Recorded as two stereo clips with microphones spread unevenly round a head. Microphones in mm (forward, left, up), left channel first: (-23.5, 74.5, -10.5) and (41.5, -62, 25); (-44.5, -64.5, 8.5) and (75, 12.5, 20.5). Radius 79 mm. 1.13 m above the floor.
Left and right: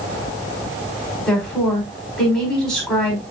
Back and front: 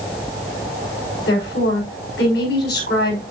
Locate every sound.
1.3 s a woman speaking: 160° right, 5 m